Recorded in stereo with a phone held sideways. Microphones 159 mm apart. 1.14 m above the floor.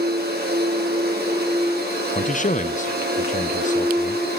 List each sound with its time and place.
0.0 s a machine running: 75° right (ahead or behind), 3 m
2.1 s a man speaking: 50° left (ahead or behind), 0.6 m